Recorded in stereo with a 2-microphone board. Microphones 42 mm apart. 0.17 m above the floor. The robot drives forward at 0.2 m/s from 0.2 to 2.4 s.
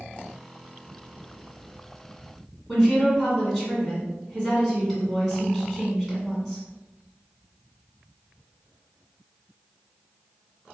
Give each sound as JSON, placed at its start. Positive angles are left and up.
{"t": 2.7, "sound": "a woman speaking", "side_deg": 0, "distance_m": 1.7}